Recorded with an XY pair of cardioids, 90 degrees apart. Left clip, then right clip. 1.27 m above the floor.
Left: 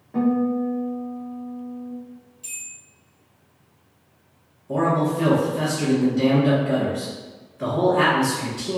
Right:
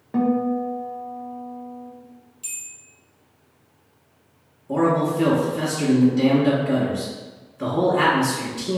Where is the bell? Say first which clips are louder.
Right 1 dB; 55° right, 1.0 m.